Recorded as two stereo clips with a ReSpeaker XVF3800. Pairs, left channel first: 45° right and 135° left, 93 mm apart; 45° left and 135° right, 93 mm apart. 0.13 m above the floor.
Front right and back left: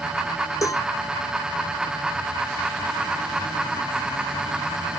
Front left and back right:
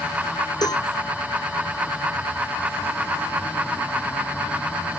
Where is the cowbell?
5° left.